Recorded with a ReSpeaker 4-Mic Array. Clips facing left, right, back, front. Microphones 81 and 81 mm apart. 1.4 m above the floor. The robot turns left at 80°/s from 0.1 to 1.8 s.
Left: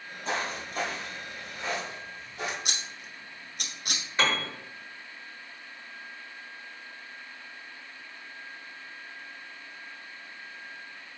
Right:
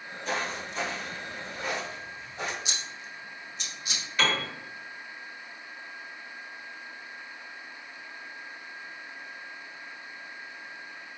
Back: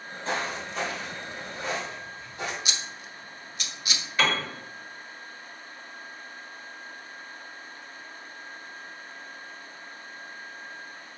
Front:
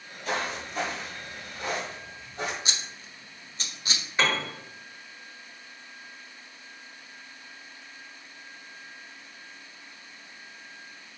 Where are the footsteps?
135° left, 2.0 m; by 2.5 s 35° right, 3 m.